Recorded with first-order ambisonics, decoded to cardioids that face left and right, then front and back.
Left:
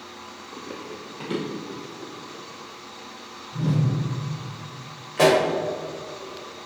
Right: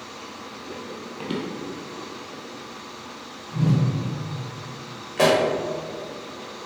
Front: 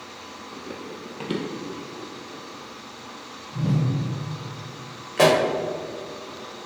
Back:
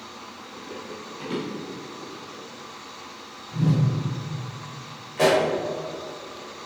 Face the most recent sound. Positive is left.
turn(degrees=0)